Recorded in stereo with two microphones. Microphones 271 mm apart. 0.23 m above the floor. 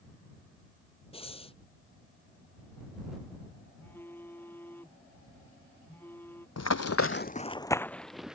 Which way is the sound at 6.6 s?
70° left (ahead or behind).